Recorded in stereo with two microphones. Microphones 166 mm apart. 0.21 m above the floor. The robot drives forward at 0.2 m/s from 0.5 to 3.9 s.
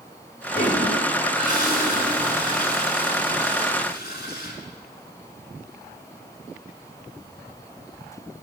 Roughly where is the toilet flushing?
Left.